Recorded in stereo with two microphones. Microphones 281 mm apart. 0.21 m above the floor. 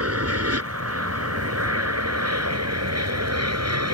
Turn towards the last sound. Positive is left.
turn(degrees=-65)  # may be behind; listen again after turning